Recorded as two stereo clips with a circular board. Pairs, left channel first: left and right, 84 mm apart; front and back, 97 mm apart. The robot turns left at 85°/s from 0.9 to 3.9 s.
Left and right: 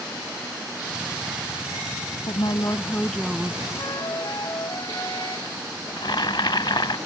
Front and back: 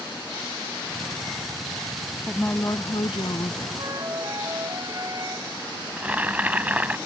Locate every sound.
2.3 s a woman speaking: 85° left; by 3.7 s 35° right
3.8 s a flute: 140° left; by 5.5 s 130° left
6.0 s boiling: 110° left